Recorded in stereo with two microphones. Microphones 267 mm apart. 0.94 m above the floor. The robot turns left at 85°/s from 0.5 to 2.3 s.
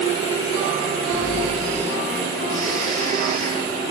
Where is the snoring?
45° right, 4.5 m; by 3.7 s 150° right, 4.5 m.